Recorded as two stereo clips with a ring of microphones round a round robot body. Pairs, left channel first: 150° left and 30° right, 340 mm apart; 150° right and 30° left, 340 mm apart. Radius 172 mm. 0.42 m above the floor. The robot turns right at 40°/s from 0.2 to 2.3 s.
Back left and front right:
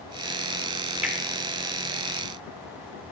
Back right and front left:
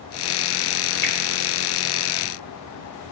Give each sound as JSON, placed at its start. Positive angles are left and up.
{"t": 1.0, "sound": "a finger snap", "azimuth_deg": -115, "distance_m": 1.5}